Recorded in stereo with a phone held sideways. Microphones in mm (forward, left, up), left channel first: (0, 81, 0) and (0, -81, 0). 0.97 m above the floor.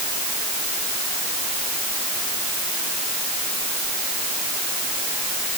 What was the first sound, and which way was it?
Only background noise.